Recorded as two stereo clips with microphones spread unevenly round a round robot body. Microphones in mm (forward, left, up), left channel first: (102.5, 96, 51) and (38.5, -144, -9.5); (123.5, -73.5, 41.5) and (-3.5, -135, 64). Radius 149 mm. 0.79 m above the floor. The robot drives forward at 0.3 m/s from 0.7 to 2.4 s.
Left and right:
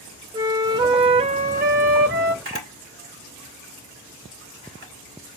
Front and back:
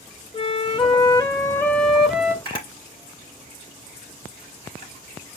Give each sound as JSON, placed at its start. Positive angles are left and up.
{"t": 0.3, "sound": "a flute", "azimuth_deg": -20, "distance_m": 0.6}
{"t": 2.5, "sound": "a camera shutter", "azimuth_deg": -160, "distance_m": 1.9}